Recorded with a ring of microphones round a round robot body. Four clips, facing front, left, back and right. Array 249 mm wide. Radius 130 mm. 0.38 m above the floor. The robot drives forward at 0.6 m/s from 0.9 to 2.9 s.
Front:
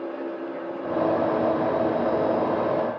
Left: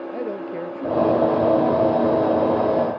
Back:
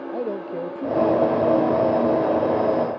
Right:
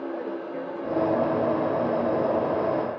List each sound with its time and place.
0.1 s a man speaking: 150° left